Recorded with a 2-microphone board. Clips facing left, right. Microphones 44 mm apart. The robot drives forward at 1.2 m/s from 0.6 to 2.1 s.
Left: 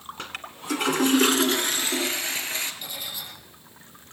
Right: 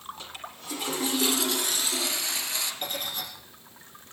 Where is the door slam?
No door slam in this recording.